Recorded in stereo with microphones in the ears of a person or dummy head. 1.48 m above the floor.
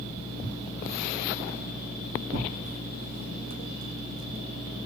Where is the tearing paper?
35° right (ahead or behind), 1.6 m.